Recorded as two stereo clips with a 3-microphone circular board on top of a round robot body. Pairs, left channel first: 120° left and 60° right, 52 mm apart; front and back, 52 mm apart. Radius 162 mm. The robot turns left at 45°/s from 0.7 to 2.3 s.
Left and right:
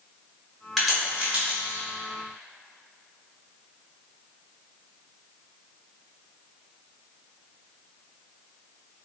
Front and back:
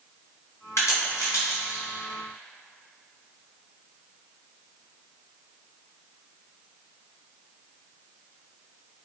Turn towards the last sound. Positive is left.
turn(degrees=-35)